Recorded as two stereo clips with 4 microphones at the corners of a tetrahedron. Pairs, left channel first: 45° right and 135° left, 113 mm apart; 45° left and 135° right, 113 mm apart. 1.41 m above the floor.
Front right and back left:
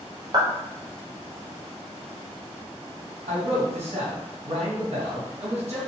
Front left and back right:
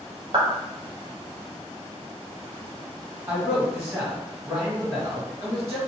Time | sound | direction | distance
0.3 | a clap | 175° right | 0.8 m
3.3 | a man speaking | 160° left | 1.5 m